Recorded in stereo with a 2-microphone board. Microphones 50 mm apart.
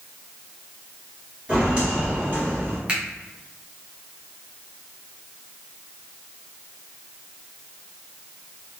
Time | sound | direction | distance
1.5 | footsteps | 20° right (ahead or behind) | 1.7 m
2.9 | a finger snap | 20° right (ahead or behind) | 0.8 m